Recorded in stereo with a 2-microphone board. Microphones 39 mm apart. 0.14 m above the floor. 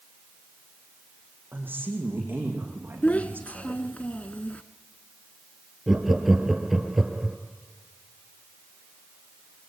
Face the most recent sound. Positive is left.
turn(degrees=-5)  # may be behind; listen again after turning